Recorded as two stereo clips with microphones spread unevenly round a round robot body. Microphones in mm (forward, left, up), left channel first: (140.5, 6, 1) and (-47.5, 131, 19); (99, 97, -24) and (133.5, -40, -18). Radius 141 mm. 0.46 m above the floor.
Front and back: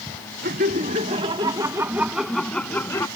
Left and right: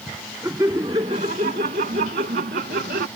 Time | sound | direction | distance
0.4 | laughter | 155° right | ?